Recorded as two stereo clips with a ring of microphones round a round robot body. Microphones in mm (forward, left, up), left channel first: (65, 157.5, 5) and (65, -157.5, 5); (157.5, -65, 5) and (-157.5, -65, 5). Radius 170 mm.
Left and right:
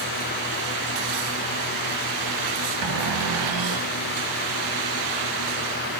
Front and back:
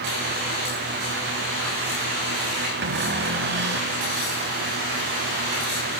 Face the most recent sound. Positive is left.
turn(degrees=-125)